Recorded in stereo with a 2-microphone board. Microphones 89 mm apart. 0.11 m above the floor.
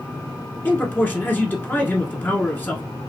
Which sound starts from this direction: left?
A man speaking, at 0.7 s.